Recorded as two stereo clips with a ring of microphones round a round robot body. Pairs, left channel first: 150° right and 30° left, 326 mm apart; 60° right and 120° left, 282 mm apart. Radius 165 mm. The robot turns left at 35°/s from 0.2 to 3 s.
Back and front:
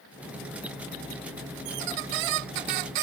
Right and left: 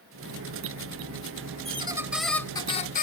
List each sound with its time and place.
1.6 s a squeak: 50° left; by 3.0 s 5° left